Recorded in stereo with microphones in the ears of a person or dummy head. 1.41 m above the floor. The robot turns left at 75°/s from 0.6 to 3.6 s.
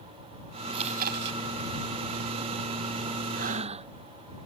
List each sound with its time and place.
0.7 s chewing: 30° right; by 1.4 s 80° right
3.4 s breathing: 55° right (ahead or behind); by 3.9 s 40° right (ahead or behind)